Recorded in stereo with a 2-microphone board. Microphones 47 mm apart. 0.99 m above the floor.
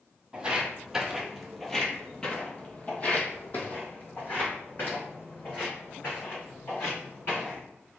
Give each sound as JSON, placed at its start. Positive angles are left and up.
{"t": 0.3, "sound": "footsteps", "side_deg": -20, "distance_m": 1.2}